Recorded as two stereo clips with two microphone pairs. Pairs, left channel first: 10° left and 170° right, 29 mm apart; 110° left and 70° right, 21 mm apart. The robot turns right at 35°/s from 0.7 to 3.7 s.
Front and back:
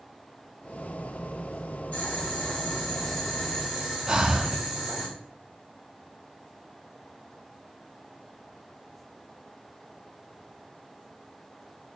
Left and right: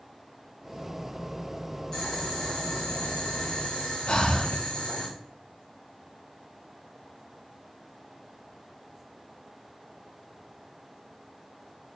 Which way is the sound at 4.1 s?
130° left.